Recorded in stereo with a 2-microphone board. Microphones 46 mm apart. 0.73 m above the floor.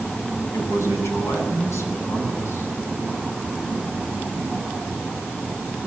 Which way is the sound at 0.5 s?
80° left.